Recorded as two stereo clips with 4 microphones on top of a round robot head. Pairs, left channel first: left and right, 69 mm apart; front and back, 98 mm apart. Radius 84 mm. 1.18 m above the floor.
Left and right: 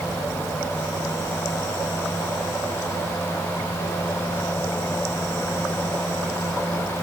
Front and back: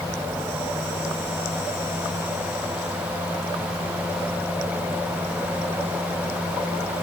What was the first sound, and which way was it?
Only background noise.